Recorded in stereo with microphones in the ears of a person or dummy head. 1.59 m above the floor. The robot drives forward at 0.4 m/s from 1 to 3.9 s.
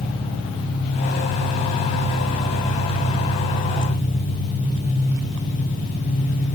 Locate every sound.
0.0 s an engine running: 35° left (ahead or behind), 5 m; by 6.6 s 45° left (ahead or behind), 4.5 m